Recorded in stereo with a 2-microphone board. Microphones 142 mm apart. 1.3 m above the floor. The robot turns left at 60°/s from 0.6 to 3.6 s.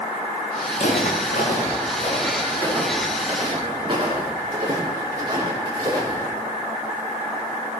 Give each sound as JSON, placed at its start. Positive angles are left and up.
{"t": 0.7, "sound": "footsteps", "side_deg": 55, "distance_m": 6.0}